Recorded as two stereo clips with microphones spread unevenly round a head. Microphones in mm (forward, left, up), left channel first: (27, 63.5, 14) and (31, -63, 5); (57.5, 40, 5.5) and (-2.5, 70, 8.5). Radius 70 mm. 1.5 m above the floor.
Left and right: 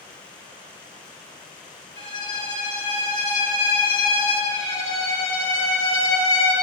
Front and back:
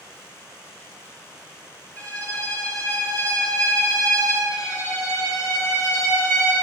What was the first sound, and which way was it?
A violin, 125° left.